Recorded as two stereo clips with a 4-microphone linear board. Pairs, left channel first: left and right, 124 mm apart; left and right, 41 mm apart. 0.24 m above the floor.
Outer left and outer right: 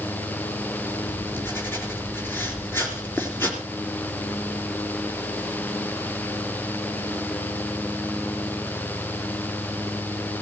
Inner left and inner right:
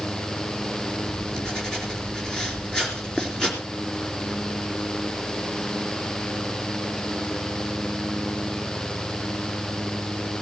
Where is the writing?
15° left (ahead or behind), 4 m.